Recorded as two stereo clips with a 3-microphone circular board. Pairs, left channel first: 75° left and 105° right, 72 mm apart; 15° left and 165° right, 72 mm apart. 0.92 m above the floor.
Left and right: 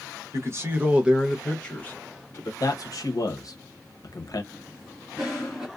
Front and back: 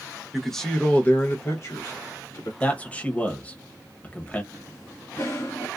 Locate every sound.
0.3 s a man speaking: 75° right, 0.9 m; by 2.5 s 35° left, 1.1 m
2.6 s a man speaking: 85° left, 0.8 m
4.5 s a cough: 30° right, 1.7 m